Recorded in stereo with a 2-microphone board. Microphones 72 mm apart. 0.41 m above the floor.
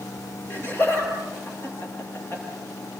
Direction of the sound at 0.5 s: 30° left (ahead or behind).